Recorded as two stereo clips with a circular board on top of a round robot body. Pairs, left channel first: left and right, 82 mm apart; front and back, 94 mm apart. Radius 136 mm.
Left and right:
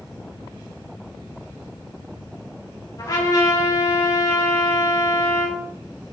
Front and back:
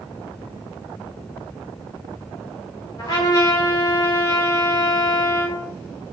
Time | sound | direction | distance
3.0 | a trumpet | 50° left | 3.5 m